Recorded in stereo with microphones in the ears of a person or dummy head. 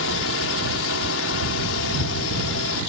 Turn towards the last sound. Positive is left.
turn(degrees=60)  # may be behind; listen again after turning